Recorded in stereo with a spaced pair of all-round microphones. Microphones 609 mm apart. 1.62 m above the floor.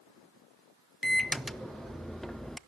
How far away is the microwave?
About 0.6 m.